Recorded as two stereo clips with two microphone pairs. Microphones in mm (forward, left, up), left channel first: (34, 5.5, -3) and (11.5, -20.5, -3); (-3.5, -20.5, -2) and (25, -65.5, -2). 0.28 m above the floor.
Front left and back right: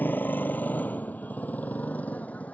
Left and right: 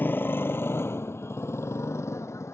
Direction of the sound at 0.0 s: 70° left.